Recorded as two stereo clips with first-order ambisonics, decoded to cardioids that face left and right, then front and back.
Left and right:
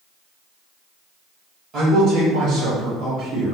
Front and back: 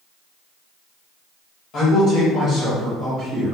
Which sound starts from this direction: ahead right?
A man speaking, at 1.7 s.